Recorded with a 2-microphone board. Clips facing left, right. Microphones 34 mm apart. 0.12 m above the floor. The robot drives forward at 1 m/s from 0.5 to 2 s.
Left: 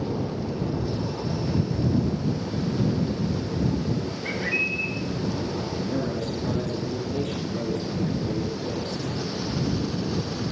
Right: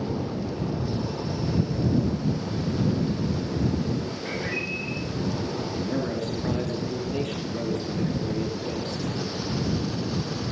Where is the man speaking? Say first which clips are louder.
Even; 45° right (ahead or behind), 3 m.